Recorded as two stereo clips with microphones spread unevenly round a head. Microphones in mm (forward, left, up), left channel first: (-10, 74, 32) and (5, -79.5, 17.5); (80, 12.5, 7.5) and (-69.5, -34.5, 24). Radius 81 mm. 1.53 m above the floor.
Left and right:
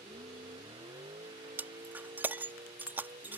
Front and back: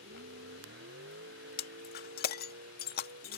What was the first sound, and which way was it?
A vehicle, 150° right.